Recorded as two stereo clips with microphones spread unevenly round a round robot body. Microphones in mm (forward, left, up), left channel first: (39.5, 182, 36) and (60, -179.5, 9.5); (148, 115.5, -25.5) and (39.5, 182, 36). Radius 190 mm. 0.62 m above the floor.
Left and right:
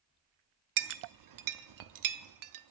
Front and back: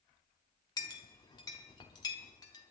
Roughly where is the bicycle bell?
I don't hear a bicycle bell.